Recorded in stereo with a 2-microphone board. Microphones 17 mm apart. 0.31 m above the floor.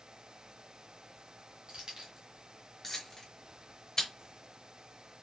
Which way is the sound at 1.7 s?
60° right (ahead or behind).